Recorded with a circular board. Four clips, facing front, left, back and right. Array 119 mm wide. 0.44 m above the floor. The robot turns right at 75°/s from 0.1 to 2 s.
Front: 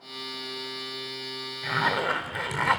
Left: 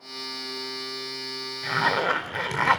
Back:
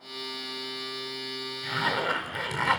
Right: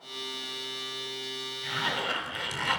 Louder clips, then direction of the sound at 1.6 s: Left 9 dB, front 2 dB; 50° left.